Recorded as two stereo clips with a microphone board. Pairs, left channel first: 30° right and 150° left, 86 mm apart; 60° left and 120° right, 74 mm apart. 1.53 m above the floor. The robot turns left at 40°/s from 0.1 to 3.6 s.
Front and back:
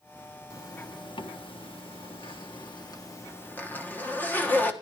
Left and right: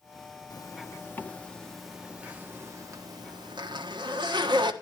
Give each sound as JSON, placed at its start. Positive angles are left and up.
{"t": 0.5, "sound": "a zipper", "azimuth_deg": 25, "distance_m": 1.4}